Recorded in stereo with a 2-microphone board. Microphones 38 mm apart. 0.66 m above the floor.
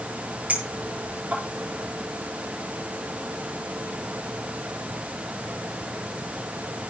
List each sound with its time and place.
0.5 s a clink: 40° right (ahead or behind), 8.5 m